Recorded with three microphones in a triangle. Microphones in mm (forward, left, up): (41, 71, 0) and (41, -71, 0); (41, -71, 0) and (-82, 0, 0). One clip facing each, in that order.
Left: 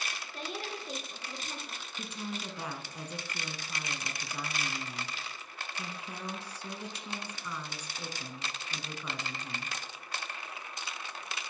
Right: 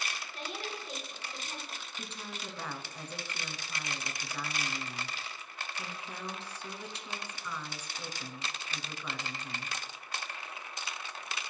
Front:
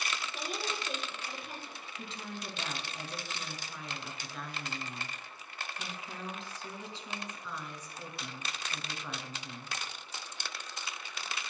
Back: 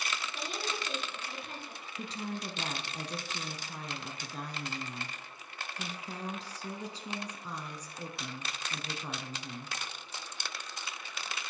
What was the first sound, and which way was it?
A woman speaking, 50° left.